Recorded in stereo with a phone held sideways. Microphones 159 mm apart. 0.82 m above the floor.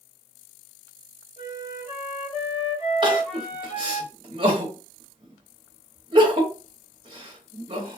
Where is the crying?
30° right (ahead or behind), 1.0 m.